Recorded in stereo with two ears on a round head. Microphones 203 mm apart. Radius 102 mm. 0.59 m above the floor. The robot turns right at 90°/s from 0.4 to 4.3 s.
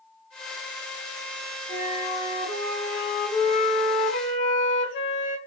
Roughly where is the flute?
Behind right.